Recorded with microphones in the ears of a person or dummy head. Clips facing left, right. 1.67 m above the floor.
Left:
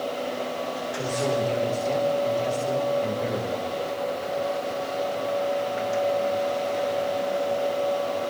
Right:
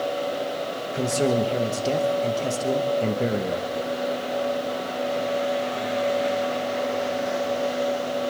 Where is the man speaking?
45° right (ahead or behind), 2.5 m.